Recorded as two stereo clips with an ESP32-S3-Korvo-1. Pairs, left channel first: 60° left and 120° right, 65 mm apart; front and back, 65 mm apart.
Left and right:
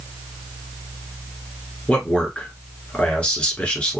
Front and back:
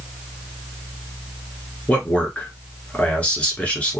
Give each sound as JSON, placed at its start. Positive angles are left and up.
{"t": 1.9, "sound": "a man speaking", "azimuth_deg": 25, "distance_m": 1.1}